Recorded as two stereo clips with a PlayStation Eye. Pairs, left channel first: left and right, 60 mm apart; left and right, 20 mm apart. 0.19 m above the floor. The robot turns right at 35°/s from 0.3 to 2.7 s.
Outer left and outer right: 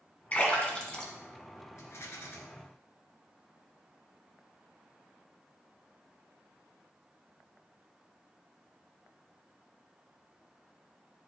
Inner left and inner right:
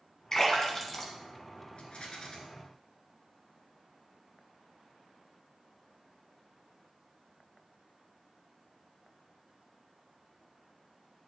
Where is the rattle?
60° left (ahead or behind), 1.4 m; by 2.4 s 45° left (ahead or behind), 1.4 m.